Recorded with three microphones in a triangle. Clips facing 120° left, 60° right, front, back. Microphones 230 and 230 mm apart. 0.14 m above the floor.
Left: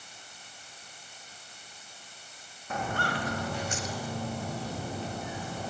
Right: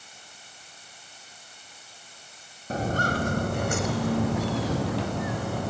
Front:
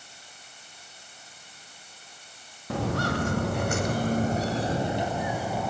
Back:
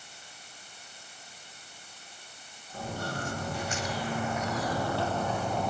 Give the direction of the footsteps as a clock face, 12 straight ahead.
12 o'clock.